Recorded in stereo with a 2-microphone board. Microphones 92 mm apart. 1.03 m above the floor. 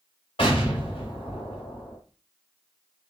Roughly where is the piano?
No piano in this recording.